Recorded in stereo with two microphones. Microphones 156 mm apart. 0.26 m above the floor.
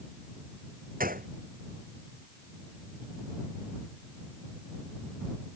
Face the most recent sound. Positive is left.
turn(degrees=-65)  # may be behind; listen again after turning